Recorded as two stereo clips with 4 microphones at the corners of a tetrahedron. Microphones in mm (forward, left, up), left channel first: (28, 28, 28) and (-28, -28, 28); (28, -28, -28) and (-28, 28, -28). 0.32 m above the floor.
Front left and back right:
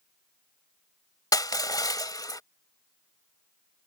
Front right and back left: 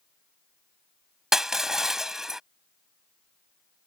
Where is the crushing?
50° left.